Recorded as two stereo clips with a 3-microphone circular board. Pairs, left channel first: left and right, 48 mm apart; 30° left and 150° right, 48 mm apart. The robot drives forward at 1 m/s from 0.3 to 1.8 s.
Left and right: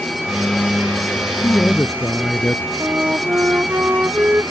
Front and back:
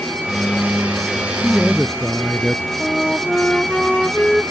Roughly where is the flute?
Ahead right.